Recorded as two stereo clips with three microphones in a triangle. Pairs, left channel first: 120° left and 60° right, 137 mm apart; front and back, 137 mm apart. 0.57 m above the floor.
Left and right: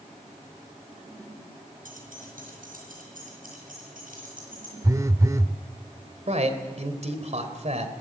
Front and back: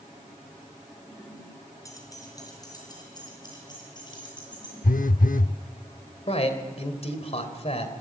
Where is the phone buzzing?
5° left, 0.5 m.